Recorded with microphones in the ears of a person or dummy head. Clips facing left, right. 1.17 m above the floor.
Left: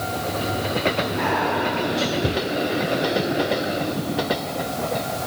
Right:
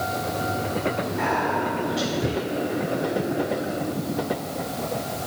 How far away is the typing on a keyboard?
No typing on a keyboard in this recording.